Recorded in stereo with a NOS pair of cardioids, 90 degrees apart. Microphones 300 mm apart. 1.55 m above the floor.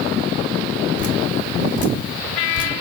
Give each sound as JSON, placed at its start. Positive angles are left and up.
{"t": 1.0, "sound": "dripping", "azimuth_deg": 55, "distance_m": 1.8}